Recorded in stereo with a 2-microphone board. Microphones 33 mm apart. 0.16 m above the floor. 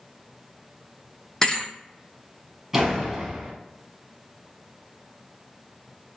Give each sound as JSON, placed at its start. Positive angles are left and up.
{"t": 1.4, "sound": "a thud", "side_deg": 25, "distance_m": 0.6}
{"t": 2.7, "sound": "a door slam", "side_deg": -15, "distance_m": 1.0}